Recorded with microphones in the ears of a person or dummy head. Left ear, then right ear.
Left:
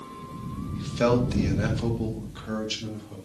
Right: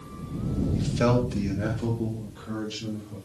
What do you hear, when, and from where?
0.8 s a man speaking: 10° right (ahead or behind), 1.8 m; by 3.1 s 70° left (ahead or behind), 3 m